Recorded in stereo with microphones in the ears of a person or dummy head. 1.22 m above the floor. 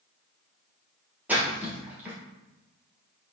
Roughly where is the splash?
Centre.